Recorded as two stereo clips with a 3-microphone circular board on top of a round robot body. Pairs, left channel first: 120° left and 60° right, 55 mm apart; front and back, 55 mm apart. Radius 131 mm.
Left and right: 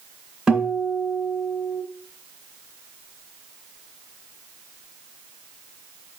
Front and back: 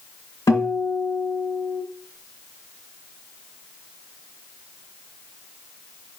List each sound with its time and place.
0.5 s a guitar: 20° left, 2.5 m